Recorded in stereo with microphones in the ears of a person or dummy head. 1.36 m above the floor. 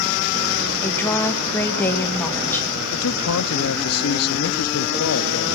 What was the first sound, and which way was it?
A woman speaking, 15° left (ahead or behind).